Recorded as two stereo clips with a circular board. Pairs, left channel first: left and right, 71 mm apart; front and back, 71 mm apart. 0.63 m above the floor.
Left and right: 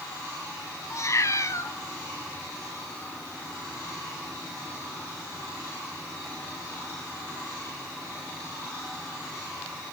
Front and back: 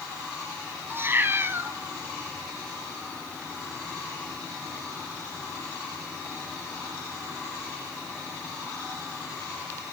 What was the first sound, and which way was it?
A cat meowing, 125° left.